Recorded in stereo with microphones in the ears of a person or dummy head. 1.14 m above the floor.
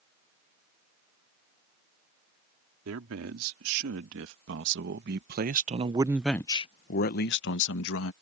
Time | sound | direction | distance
2.9 | a man speaking | 75° right (ahead or behind) | ?